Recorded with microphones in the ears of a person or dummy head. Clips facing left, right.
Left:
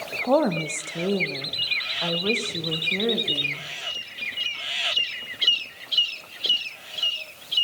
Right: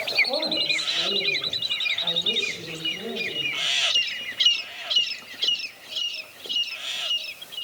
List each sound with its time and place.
0.2 s a woman speaking: 85° left, 2.0 m; by 3.7 s 70° left (ahead or behind), 3.5 m